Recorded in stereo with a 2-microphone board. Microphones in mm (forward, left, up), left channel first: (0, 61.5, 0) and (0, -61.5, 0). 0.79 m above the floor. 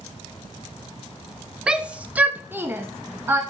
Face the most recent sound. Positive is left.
turn(degrees=-20)  # may be behind; listen again after turning